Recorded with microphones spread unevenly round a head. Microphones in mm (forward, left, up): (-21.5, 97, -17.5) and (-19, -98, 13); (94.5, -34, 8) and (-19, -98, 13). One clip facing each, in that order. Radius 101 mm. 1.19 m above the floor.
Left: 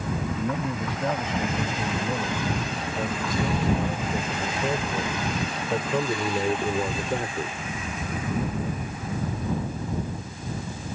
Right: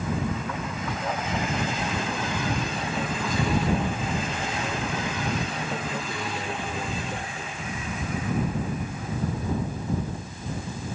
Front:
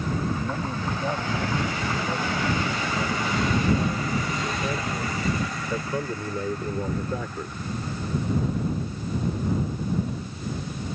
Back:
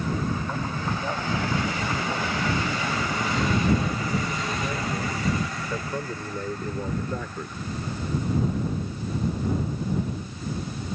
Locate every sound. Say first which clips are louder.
0.4 s a man speaking: left 5 dB, front 1 dB; 110° left; by 7.6 s 115° left